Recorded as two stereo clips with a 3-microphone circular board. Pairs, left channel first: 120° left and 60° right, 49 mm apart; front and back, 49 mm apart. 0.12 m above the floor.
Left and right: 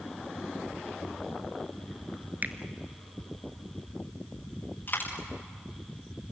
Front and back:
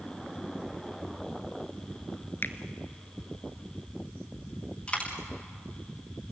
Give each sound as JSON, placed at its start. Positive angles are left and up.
{"t": 2.4, "sound": "a finger snap", "azimuth_deg": -20, "distance_m": 1.2}
{"t": 4.9, "sound": "a dropped coin", "azimuth_deg": 65, "distance_m": 5.5}